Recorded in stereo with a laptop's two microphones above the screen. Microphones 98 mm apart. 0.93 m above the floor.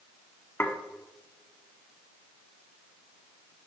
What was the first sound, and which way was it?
Dishes clattering, 20° left (ahead or behind).